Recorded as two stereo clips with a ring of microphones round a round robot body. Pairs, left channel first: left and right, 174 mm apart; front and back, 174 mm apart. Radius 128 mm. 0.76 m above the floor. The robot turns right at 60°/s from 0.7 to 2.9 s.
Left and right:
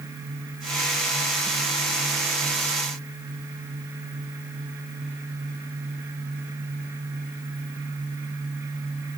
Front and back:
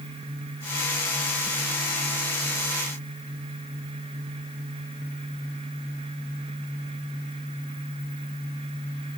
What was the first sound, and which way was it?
Only background noise.